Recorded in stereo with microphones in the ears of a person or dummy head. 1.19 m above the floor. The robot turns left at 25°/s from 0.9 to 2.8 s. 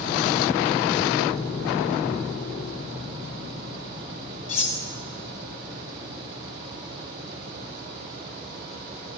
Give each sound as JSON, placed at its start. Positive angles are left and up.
{"t": 4.5, "sound": "cutlery clinking", "side_deg": 35, "distance_m": 1.2}